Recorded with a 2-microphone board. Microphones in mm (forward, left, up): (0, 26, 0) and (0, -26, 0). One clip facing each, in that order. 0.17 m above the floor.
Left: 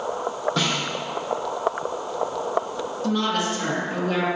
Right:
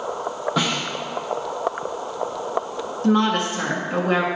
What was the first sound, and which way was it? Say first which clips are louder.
A snare drum: right 4 dB; 10° right (ahead or behind).